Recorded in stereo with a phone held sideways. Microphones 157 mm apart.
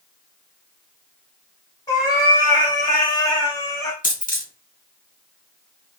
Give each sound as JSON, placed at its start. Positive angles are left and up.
{"t": 1.9, "sound": "a cat meowing", "side_deg": 25, "distance_m": 1.0}
{"t": 4.0, "sound": "a dropped coin", "side_deg": 60, "distance_m": 0.9}